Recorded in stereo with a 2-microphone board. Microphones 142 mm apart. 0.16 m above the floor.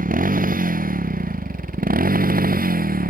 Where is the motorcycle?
75° right (ahead or behind); by 3.1 s 85° right.